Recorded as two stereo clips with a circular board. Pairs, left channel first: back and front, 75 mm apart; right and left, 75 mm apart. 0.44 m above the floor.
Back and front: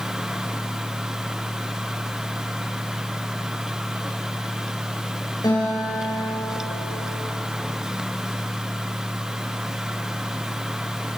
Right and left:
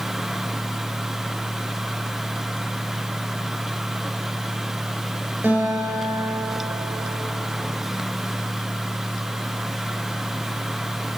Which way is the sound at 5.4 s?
150° left.